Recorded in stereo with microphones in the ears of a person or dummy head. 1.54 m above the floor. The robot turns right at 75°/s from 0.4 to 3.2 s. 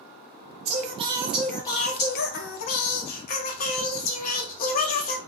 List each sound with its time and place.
0.7 s singing: 55° right, 0.6 m; by 5.2 s 135° left, 0.6 m